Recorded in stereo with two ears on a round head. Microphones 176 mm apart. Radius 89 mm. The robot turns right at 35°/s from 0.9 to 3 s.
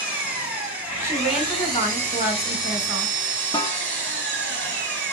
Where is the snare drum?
20° left (ahead or behind), 0.6 m.